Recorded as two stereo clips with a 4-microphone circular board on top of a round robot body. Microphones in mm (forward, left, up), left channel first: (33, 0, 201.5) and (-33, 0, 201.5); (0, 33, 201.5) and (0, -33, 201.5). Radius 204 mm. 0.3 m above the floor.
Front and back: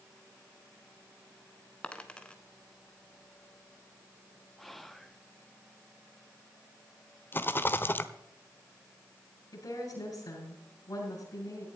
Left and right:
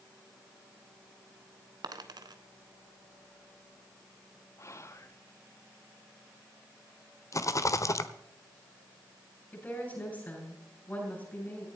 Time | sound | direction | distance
1.8 | a dropped coin | 75° right | 1.0 m
4.6 | whispering | 85° left | 1.6 m
7.3 | a rattle | 55° left | 1.2 m
9.5 | a woman speaking | 25° left | 9 m